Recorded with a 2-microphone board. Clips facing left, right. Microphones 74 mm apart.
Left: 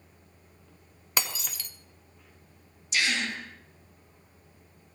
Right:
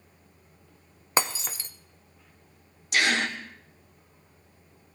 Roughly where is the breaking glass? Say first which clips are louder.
Right 6 dB; right.